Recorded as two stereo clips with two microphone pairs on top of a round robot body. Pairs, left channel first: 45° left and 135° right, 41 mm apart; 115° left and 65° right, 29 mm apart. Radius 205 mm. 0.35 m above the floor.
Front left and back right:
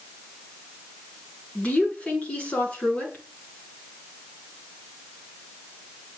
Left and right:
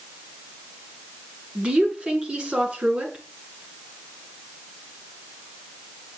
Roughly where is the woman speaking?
Ahead.